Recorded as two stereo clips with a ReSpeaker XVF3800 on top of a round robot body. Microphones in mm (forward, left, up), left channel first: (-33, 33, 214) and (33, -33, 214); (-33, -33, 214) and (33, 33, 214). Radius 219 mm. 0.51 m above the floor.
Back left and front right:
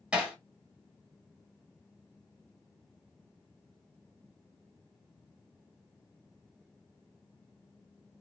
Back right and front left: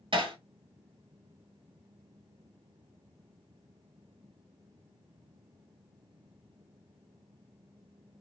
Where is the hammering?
30° left, 1.8 m.